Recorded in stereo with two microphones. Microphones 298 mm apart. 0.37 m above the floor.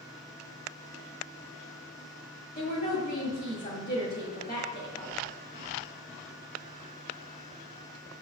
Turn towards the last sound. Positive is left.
turn(degrees=30)  # may be behind; listen again after turning